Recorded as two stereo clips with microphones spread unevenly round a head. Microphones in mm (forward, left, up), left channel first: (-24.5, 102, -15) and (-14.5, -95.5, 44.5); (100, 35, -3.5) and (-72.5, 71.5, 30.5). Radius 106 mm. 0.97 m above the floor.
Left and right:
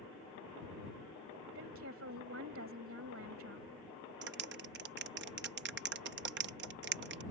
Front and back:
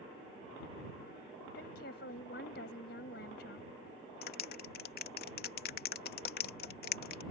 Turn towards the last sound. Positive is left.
turn(degrees=-45)